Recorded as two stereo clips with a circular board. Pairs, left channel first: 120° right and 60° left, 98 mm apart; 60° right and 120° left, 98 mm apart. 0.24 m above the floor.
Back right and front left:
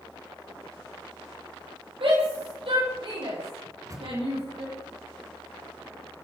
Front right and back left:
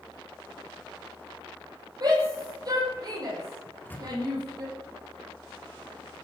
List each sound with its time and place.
2.0 s a shout: 75° left, 9.5 m
3.6 s a microwave: 10° left, 3 m